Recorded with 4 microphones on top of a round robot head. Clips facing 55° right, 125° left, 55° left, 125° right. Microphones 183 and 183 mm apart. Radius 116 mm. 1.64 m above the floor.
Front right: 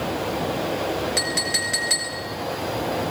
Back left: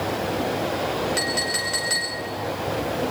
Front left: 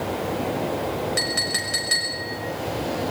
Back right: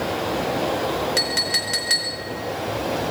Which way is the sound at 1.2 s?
130° right.